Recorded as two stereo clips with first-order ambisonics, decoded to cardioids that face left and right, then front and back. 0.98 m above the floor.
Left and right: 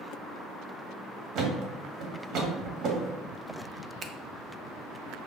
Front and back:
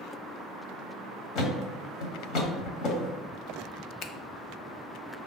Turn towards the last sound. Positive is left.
turn(degrees=-30)